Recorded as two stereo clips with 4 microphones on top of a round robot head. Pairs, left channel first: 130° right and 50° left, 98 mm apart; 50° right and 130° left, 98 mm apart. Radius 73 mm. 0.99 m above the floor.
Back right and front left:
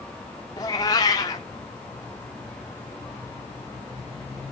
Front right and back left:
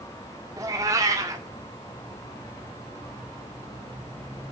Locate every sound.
0.6 s a cat meowing: 175° right, 0.6 m